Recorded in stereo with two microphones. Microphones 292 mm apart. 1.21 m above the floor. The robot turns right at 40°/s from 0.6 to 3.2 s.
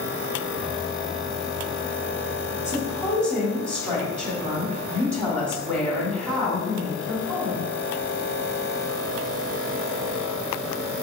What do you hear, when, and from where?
2.6 s a woman speaking: 25° left (ahead or behind), 3 m; by 7.7 s 5° left (ahead or behind), 3 m